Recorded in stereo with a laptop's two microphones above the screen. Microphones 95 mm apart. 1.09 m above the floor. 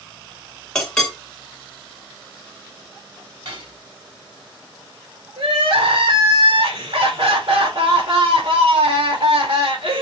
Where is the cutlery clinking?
65° right (ahead or behind), 4.5 m.